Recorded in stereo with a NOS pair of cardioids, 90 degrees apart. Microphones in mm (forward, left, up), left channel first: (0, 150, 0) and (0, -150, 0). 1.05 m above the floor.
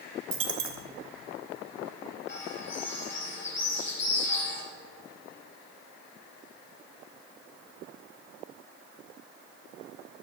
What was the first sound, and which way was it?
A dropped coin, 45° right.